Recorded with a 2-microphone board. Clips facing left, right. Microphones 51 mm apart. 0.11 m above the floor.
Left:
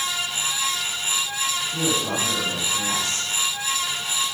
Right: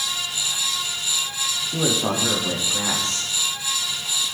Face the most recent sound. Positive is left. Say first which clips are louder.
# right 4 dB
turn(degrees=-55)  # may be behind; listen again after turning